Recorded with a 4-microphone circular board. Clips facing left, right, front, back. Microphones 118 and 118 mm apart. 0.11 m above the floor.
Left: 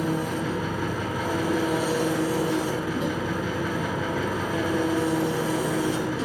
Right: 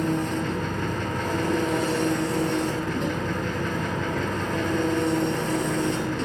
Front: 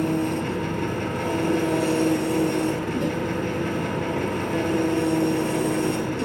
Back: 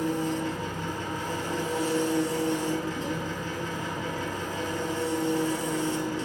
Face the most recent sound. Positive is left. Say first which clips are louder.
# right 1 dB, front 4 dB
turn(degrees=5)